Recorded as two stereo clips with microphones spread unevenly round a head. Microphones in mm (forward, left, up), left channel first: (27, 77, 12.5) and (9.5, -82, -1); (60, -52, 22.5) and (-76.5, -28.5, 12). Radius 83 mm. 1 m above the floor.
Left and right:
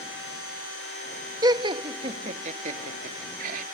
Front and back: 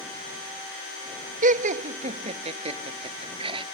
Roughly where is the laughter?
Behind.